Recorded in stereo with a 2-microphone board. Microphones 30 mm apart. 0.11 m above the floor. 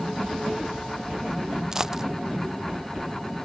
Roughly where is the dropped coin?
Centre.